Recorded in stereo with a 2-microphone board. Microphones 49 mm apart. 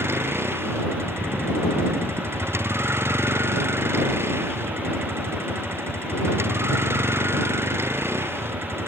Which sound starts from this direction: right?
A vehicle, at 0.0 s.